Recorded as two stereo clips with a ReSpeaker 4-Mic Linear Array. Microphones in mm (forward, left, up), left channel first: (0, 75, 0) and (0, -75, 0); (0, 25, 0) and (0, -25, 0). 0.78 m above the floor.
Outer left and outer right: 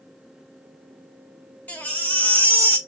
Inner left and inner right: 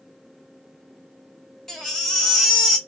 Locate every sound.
1.7 s a baby crying: 10° left (ahead or behind), 1.4 m